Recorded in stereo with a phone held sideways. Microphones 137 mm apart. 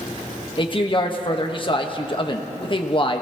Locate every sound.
0.6 s a man speaking: 35° left (ahead or behind), 1.3 m